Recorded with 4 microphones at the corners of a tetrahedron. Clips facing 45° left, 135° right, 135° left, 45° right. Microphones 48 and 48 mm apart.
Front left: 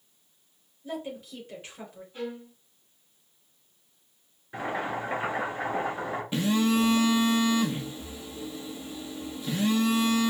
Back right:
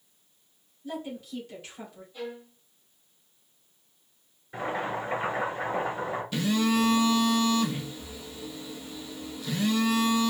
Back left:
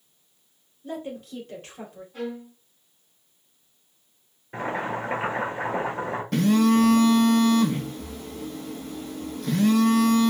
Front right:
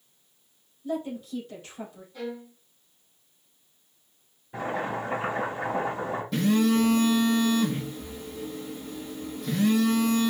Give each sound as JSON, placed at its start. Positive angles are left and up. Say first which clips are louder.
{"t": 0.8, "sound": "a woman speaking", "louder": "even, front right 3 dB", "azimuth_deg": 110, "distance_m": 2.5}
{"t": 2.1, "sound": "a violin", "louder": "front left 2 dB, back left 2 dB", "azimuth_deg": 100, "distance_m": 2.5}
{"t": 4.5, "sound": "boiling", "louder": "even, back left 1 dB", "azimuth_deg": 125, "distance_m": 2.0}
{"t": 6.3, "sound": "a phone buzzing", "louder": "front left 1 dB, back left 3 dB", "azimuth_deg": 110, "distance_m": 0.9}